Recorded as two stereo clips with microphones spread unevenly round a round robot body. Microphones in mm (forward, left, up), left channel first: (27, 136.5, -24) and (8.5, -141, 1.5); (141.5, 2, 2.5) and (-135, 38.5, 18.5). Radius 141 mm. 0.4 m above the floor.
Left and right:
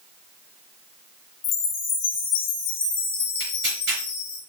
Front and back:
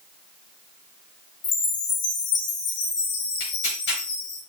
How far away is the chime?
About 2.5 m.